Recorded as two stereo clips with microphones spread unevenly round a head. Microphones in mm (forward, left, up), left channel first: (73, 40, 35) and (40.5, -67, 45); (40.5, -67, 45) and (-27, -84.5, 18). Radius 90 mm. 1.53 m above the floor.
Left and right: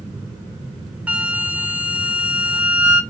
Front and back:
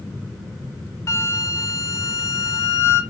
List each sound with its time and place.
1.1 s a flute: 30° right, 0.5 m